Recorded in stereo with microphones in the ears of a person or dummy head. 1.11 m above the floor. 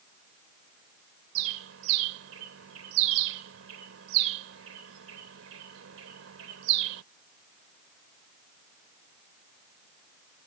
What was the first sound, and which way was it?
A bird, 80° right.